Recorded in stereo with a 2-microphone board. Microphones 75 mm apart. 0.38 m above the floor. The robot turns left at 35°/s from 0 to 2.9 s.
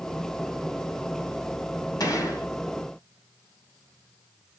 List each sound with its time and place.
2.0 s a gunshot: 55° left (ahead or behind), 2 m; by 2.5 s 40° left (ahead or behind), 2 m